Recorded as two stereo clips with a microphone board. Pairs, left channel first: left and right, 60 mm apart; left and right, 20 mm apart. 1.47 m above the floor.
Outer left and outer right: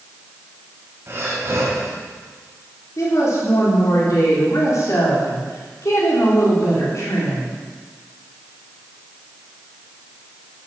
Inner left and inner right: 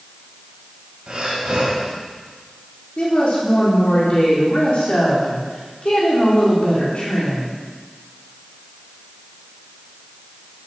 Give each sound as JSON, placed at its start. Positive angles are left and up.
{"t": 1.1, "sound": "breathing", "side_deg": -40, "distance_m": 4.0}
{"t": 3.0, "sound": "a woman speaking", "side_deg": 60, "distance_m": 4.0}